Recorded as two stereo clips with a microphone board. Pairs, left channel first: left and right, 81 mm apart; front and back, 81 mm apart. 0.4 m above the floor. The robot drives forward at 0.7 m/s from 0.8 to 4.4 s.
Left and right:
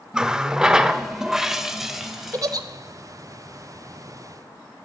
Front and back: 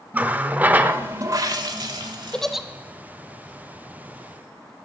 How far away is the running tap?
About 0.5 m.